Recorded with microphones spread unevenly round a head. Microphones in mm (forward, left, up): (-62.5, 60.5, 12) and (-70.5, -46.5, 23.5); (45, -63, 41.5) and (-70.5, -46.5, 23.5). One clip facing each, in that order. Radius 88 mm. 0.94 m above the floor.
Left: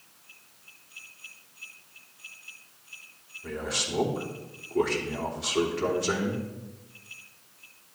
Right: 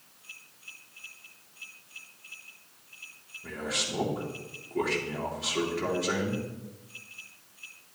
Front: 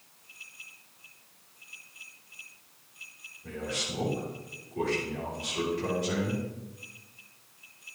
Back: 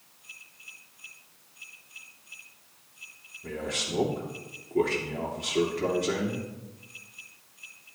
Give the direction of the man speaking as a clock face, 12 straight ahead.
6 o'clock.